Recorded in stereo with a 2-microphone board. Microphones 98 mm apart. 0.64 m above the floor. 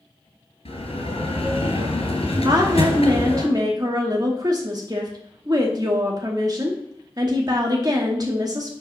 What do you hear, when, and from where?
0.7 s a bell: 85° left, 3 m
2.5 s a woman speaking: 40° right (ahead or behind), 1.0 m